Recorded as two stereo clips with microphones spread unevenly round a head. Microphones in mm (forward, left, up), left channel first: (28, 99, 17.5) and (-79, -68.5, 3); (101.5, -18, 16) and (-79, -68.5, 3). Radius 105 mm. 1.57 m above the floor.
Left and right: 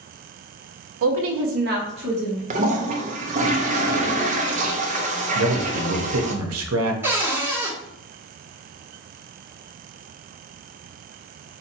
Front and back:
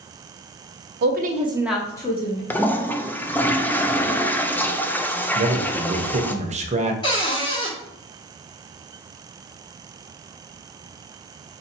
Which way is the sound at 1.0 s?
135° right.